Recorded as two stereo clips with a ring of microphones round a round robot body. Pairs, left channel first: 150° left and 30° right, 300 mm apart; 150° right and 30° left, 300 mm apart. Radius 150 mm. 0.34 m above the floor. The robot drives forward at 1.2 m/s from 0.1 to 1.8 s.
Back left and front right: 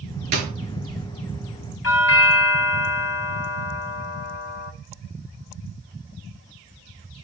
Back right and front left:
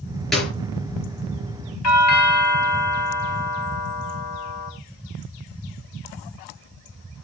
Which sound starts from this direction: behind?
A doorbell, at 1.8 s.